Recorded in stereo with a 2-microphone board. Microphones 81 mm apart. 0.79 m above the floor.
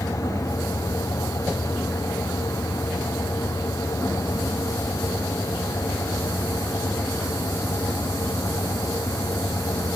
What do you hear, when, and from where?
Only background noise.